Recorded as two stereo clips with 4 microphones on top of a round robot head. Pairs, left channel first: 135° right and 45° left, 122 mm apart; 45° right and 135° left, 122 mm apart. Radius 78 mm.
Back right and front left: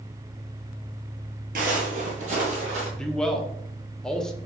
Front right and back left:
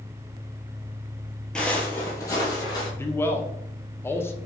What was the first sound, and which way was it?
Footsteps, 35° left.